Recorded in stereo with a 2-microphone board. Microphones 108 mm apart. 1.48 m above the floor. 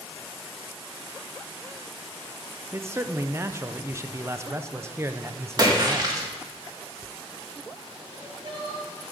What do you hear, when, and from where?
2.7 s a man speaking: 25° right (ahead or behind), 0.6 m
5.6 s a splash: 40° right (ahead or behind), 2 m
8.1 s crying: 45° right (ahead or behind), 3 m